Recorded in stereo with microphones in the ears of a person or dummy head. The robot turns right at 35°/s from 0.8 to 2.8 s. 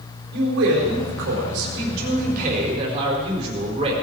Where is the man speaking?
105° right, 5 m; by 3.9 s 35° right, 5 m.